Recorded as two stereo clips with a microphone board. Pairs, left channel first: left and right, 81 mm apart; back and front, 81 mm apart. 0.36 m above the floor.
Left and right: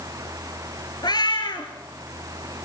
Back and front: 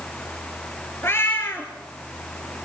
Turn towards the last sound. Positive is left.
turn(degrees=115)